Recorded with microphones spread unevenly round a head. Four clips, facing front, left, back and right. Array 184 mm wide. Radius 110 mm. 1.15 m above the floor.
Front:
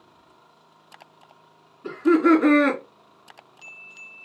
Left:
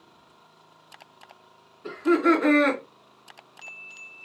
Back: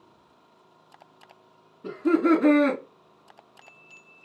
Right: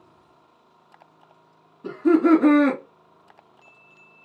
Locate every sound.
1.8 s laughter: 125° right, 2 m